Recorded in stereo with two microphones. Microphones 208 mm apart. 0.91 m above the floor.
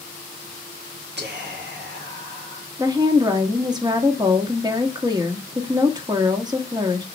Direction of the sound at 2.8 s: 20° right (ahead or behind).